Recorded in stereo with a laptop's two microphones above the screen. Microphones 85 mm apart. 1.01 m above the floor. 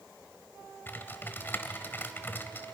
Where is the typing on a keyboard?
25° left (ahead or behind), 1.2 m.